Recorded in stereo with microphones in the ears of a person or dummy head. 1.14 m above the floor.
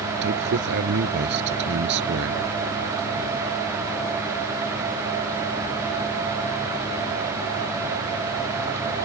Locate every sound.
0.2 s a man speaking: 65° right (ahead or behind)